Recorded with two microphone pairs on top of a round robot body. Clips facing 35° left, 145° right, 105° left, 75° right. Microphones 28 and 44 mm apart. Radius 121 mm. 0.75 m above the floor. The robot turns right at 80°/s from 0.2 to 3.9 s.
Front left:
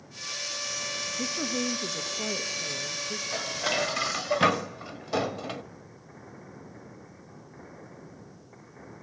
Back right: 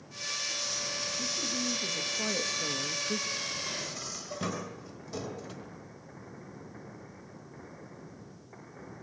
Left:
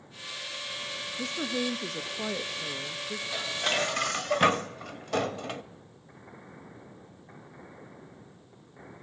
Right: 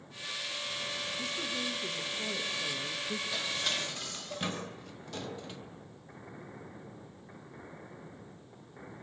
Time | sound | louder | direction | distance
1.2 | a woman speaking | front left 5 dB, left 8 dB | 55° left | 1.1 m
3.3 | dishes clattering | front left 7 dB, left 8 dB | 20° left | 1.1 m